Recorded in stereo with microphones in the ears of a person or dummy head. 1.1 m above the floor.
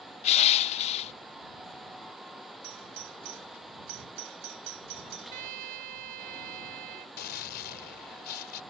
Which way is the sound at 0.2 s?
30° left (ahead or behind).